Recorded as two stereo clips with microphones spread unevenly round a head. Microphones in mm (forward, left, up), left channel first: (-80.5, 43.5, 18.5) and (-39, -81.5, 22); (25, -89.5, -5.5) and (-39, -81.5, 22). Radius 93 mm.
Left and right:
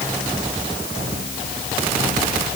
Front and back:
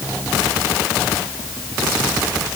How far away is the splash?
No splash in this recording.